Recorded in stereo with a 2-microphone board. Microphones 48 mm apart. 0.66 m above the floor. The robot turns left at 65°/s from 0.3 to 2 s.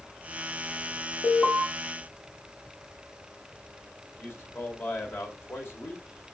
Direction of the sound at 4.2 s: 50° left (ahead or behind).